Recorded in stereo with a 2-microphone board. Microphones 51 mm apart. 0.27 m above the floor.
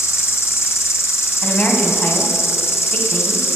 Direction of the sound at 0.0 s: 65° left (ahead or behind).